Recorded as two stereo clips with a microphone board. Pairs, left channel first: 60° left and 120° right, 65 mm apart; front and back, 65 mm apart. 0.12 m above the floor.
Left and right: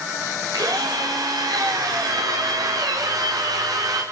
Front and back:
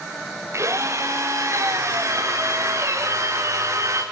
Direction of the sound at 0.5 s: 135° right.